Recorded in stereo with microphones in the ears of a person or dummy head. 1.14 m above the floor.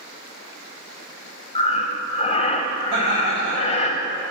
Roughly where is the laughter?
Right.